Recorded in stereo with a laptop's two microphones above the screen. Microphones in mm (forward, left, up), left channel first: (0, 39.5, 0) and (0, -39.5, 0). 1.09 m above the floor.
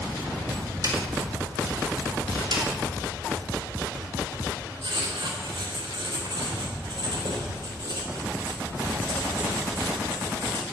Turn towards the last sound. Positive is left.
turn(degrees=-90)